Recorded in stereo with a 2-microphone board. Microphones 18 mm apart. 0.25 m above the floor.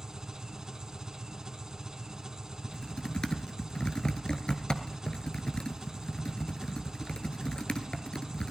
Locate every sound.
0.0 s an engine running: 35° right (ahead or behind), 1.8 m
2.6 s typing on a keyboard: 50° left (ahead or behind), 1.0 m